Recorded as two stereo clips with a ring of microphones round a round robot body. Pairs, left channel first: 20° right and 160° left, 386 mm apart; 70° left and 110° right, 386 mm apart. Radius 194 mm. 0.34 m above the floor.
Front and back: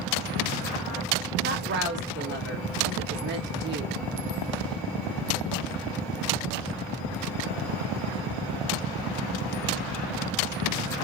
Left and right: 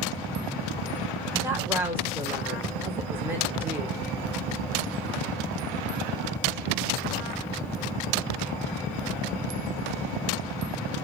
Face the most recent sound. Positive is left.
turn(degrees=170)